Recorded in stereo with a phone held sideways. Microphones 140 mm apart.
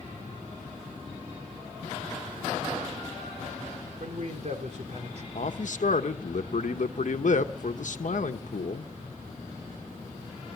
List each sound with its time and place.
4.0 s a man speaking: 55° right (ahead or behind), 4 m
5.3 s a man speaking: 65° left (ahead or behind), 1.0 m